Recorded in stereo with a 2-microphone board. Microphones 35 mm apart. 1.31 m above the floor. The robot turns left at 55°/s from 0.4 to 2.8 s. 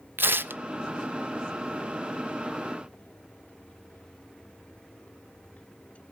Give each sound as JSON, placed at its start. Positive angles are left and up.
{"t": 0.2, "sound": "tearing paper", "side_deg": -80, "distance_m": 0.6}